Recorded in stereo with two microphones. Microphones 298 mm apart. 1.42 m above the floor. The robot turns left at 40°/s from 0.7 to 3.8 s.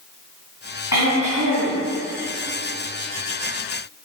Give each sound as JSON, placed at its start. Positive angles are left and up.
{"t": 0.9, "sound": "throat clearing", "azimuth_deg": 95, "distance_m": 3.5}